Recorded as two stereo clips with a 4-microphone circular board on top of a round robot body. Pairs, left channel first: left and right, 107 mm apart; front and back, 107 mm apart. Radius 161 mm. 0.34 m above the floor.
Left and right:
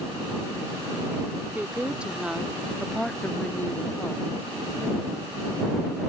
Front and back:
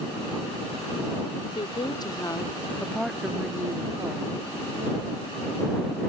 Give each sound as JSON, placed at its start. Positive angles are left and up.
{"t": 1.6, "sound": "a woman speaking", "azimuth_deg": -15}